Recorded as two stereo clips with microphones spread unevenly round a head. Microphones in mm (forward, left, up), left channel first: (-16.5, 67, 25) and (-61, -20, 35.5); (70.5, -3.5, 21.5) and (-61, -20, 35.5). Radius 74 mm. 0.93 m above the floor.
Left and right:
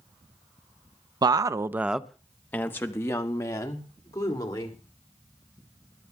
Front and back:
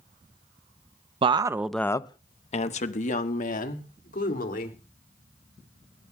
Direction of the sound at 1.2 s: 145° right.